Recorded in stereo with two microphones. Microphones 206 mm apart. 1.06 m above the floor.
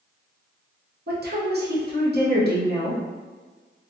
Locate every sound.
1.1 s a woman speaking: 50° right (ahead or behind), 0.8 m